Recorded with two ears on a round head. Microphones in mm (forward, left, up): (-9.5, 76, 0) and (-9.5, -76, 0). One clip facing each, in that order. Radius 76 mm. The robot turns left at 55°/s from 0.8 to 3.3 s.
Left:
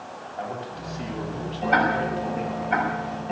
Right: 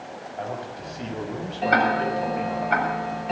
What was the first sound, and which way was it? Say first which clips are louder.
A man speaking: even; 15° right.